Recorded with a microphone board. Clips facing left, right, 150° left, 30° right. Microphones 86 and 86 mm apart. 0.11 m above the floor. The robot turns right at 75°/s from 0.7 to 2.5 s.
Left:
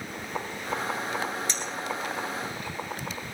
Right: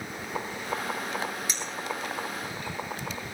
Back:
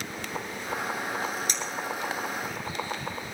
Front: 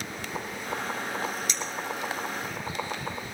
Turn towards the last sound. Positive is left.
turn(degrees=-85)